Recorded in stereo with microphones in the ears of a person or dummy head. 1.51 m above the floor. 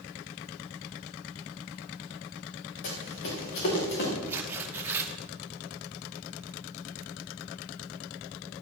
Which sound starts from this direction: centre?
Tearing paper, at 4.3 s.